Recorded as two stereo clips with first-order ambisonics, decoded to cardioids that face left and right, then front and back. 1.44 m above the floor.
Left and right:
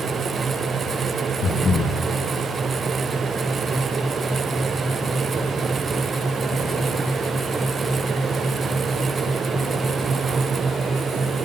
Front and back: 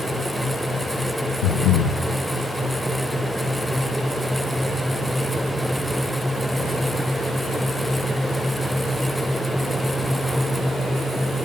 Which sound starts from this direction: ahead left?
Breathing, at 1.4 s.